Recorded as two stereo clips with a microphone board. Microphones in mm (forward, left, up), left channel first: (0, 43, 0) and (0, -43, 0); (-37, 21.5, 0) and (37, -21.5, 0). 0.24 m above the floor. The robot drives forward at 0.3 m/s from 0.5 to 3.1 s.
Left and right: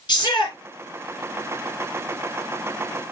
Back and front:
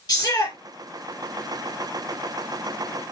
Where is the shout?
115° left, 2.5 m.